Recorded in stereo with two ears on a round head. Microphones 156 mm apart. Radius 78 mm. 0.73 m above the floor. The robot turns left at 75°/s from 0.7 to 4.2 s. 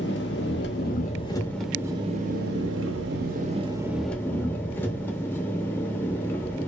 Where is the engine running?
70° left, 0.8 m; by 6.7 s 170° left, 0.8 m.